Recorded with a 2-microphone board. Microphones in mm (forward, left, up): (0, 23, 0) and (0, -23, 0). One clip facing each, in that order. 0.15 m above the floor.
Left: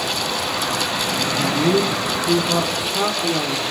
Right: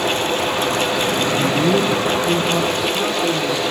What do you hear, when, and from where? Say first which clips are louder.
1.3 s a man speaking: even; 10° right (ahead or behind), 1.3 m; by 3.7 s 5° left (ahead or behind), 4 m